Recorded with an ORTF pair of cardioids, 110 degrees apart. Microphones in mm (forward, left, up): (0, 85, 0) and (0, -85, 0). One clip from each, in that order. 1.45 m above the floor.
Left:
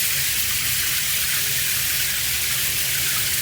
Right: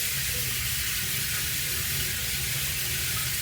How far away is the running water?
About 0.8 m.